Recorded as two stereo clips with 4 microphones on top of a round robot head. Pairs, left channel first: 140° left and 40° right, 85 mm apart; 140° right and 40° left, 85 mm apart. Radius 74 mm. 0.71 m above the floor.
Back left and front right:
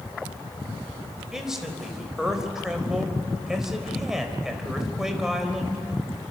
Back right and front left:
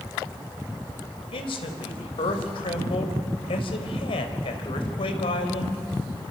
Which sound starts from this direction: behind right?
A man speaking, at 1.3 s.